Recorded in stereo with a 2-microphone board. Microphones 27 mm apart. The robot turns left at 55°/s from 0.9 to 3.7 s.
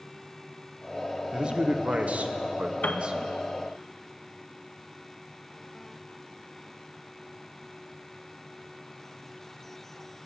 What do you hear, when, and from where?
1.3 s a man speaking: 35° right, 0.8 m; by 3.2 s 135° right, 0.8 m
2.8 s a piano: 65° left (ahead or behind), 0.5 m; by 3.1 s 55° left (ahead or behind), 0.5 m